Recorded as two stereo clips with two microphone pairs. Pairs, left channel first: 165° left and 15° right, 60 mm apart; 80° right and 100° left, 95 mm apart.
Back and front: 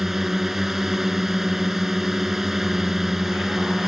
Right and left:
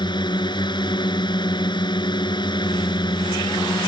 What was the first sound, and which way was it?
A drone, 95° right.